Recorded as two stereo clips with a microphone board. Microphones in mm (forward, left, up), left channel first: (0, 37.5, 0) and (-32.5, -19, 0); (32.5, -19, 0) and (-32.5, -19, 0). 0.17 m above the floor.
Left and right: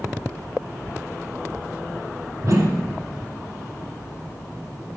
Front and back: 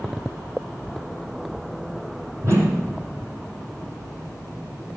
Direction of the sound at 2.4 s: 140° right.